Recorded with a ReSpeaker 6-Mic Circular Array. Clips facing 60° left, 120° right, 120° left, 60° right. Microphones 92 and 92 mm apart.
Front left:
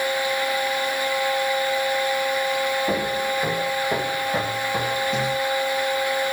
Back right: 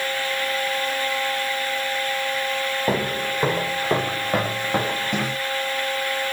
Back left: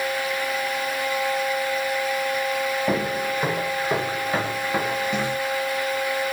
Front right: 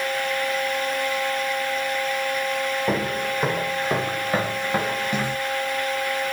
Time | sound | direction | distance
2.9 | footsteps | 145° right | 7 m